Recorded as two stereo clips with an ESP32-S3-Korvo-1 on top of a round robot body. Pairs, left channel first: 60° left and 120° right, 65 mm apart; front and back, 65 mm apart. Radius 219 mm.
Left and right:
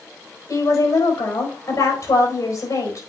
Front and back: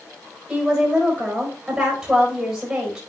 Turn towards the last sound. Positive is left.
turn(degrees=95)